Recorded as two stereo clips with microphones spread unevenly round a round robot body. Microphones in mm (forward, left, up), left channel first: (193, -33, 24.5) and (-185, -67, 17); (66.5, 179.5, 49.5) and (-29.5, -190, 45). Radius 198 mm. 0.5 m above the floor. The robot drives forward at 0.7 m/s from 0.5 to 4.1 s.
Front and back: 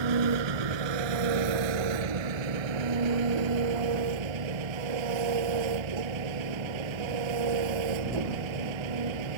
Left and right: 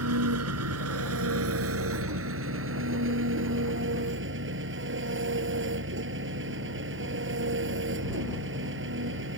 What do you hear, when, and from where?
0.0 s an engine running: 160° right; by 9.4 s 165° right